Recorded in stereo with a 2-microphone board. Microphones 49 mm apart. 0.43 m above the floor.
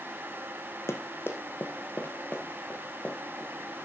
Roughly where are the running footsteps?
Left.